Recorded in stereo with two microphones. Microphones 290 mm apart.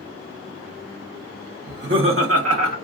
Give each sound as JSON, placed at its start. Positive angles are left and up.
{"t": 1.7, "sound": "laughter", "side_deg": -35, "distance_m": 0.9}